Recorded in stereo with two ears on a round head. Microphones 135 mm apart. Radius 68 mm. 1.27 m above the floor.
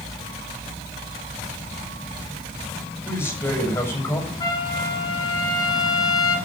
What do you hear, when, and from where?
3.0 s a man speaking: 15° left (ahead or behind), 7 m
4.4 s a trumpet: 25° left (ahead or behind), 6 m